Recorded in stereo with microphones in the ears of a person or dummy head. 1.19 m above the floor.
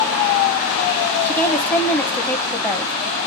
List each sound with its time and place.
1.2 s a woman speaking: 15° left (ahead or behind), 1.4 m